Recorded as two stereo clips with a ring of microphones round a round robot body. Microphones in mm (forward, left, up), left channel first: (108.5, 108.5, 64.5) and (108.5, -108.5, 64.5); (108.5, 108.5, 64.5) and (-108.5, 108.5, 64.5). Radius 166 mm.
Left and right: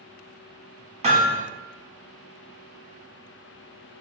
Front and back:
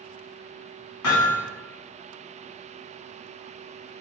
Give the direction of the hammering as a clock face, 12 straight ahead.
1 o'clock.